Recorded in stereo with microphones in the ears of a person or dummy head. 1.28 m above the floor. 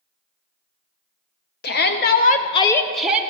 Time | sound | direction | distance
1.6 | a shout | 50° left (ahead or behind) | 1.1 m